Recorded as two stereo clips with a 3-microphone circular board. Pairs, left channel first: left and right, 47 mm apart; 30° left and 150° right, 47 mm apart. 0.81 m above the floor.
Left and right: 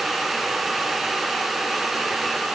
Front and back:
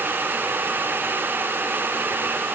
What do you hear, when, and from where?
Only background noise.